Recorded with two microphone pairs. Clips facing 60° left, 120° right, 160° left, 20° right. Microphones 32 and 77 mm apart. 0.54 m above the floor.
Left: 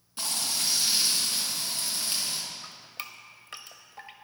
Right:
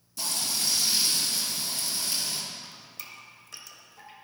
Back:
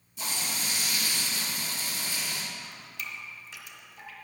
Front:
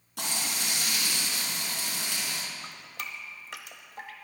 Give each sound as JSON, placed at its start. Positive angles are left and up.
{"t": 0.2, "sound": "frying", "azimuth_deg": 5, "distance_m": 3.5}
{"t": 2.6, "sound": "dripping", "azimuth_deg": 10, "distance_m": 1.1}